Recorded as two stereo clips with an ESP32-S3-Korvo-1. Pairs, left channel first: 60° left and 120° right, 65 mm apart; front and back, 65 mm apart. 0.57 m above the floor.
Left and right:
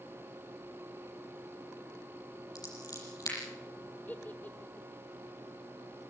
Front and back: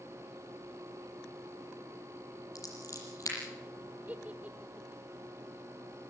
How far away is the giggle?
About 1.5 m.